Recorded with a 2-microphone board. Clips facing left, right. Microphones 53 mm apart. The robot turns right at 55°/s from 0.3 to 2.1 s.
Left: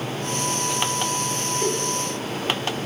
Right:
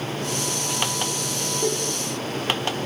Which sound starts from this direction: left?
A giggle, at 1.6 s.